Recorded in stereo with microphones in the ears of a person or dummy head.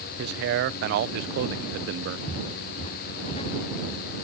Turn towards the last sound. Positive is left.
turn(degrees=35)  # may be behind; listen again after turning